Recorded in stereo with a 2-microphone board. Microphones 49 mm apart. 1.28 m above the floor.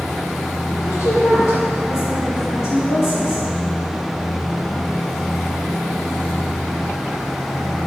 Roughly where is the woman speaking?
Left.